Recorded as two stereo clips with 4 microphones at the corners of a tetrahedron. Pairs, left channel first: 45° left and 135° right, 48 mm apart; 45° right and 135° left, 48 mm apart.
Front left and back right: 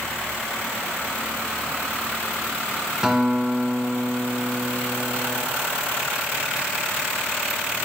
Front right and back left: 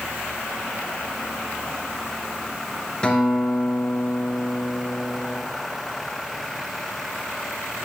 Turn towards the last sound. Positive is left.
turn(degrees=-85)